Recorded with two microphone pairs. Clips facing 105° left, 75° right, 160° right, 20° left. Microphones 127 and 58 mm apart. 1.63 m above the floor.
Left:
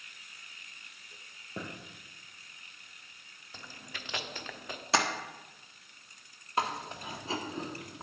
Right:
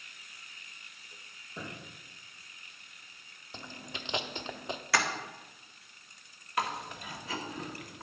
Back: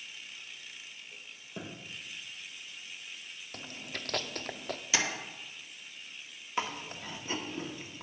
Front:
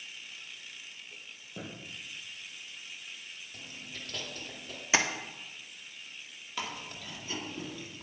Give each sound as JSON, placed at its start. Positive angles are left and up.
{"t": 1.6, "sound": "a thud", "azimuth_deg": 125, "distance_m": 4.5}
{"t": 3.5, "sound": "chewing", "azimuth_deg": -145, "distance_m": 0.7}
{"t": 4.9, "sound": "tapping", "azimuth_deg": 55, "distance_m": 1.3}
{"t": 6.6, "sound": "chewing", "azimuth_deg": 155, "distance_m": 1.5}